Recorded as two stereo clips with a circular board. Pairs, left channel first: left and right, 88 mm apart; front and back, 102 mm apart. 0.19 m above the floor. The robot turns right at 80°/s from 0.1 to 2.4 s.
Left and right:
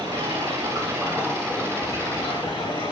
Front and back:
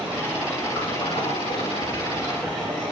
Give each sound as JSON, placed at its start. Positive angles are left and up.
{"t": 0.0, "sound": "running water", "azimuth_deg": -95, "distance_m": 7.0}